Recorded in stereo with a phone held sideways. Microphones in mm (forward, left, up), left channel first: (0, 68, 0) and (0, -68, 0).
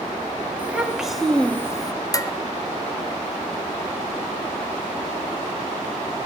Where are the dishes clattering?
25° left (ahead or behind), 0.6 m.